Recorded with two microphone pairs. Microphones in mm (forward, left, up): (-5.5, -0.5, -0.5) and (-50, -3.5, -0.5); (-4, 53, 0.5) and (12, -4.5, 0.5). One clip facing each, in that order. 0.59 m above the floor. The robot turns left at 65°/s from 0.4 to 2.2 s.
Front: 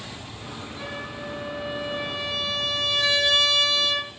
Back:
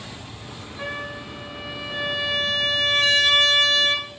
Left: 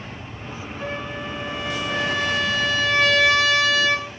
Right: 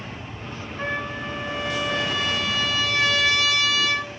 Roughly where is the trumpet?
Behind right.